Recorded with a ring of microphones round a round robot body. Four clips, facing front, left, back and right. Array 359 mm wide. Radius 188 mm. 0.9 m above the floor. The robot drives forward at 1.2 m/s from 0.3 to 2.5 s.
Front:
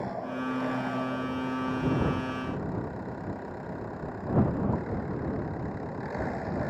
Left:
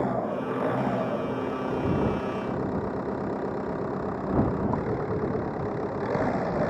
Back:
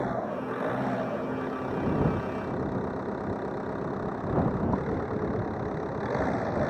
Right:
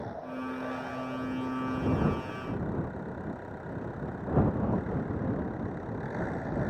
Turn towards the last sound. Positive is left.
turn(degrees=115)